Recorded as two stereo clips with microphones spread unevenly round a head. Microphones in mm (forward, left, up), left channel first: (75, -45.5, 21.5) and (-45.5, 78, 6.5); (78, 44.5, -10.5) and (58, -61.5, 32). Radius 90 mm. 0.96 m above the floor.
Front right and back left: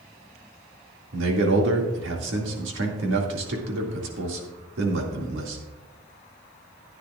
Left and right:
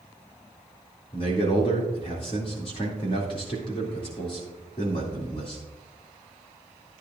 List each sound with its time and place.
1.1 s a man speaking: 130° left, 2.5 m